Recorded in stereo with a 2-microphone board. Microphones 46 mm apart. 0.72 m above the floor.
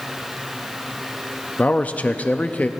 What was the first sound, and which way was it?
A man speaking, 35° left (ahead or behind).